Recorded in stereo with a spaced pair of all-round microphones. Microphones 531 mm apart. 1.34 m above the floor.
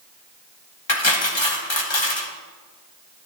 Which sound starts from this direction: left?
Cutlery clinking, at 0.9 s.